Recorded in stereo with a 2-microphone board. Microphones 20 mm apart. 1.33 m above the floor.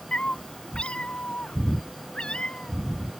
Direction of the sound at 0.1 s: 70° left (ahead or behind).